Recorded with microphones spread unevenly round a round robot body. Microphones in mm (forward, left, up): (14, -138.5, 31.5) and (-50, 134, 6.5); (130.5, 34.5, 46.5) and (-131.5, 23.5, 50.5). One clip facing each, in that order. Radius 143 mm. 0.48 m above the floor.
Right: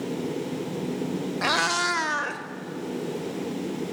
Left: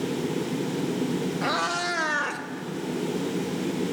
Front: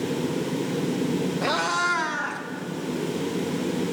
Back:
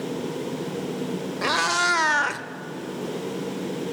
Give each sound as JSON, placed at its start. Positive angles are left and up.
{"t": 1.4, "sound": "a cat meowing", "azimuth_deg": -110, "distance_m": 1.1}